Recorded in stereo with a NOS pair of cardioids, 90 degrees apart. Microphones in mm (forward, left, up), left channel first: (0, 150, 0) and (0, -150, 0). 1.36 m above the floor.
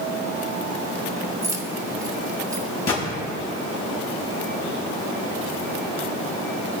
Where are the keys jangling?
10° right, 1.8 m.